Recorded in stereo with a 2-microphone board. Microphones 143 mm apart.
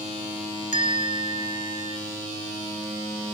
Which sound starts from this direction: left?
A bell, at 0.7 s.